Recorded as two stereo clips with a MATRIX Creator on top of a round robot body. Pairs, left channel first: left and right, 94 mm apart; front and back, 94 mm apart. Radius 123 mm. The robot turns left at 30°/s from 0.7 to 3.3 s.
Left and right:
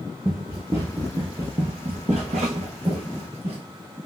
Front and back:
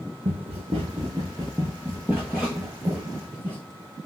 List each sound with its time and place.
0.2 s running footsteps: 160° right, 0.9 m; by 3.6 s 105° right, 1.2 m